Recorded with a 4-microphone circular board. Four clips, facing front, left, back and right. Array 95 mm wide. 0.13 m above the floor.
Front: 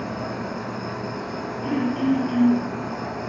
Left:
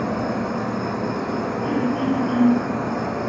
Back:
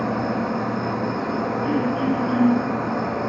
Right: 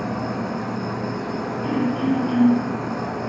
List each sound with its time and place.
0.0 s an insect: 165° left, 1.2 m
1.6 s throat clearing: 30° right, 3.5 m